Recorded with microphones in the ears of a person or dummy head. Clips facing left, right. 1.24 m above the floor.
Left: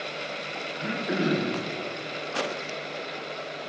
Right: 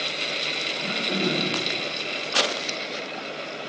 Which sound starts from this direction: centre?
Throat clearing, at 0.8 s.